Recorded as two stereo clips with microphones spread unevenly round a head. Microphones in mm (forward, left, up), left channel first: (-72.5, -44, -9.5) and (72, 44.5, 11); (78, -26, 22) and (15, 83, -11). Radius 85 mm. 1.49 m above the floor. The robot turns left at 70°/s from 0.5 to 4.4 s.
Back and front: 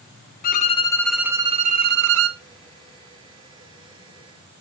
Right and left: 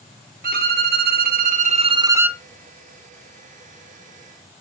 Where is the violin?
165° left, 0.8 m; by 2.4 s 30° left, 0.8 m.